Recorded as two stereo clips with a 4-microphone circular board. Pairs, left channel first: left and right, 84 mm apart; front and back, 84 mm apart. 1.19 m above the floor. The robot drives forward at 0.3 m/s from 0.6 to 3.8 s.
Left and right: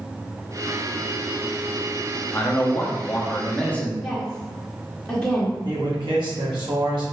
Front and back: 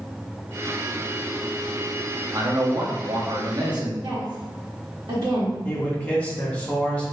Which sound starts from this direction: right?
A man speaking, at 5.7 s.